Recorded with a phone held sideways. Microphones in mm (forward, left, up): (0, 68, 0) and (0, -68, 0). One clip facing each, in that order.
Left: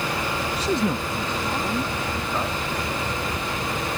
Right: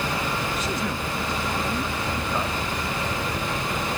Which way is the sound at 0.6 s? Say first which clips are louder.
Left 4 dB; 35° left (ahead or behind).